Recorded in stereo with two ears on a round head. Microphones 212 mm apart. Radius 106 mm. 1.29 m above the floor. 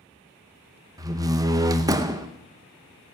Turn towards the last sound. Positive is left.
turn(degrees=-15)  # may be behind; listen again after turning